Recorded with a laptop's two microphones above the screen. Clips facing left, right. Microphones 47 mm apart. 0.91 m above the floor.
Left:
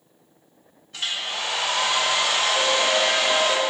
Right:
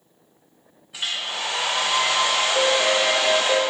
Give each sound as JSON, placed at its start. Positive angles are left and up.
{"t": 0.9, "sound": "a hair dryer", "side_deg": -10, "distance_m": 0.6}
{"t": 2.5, "sound": "a piano", "side_deg": -45, "distance_m": 1.0}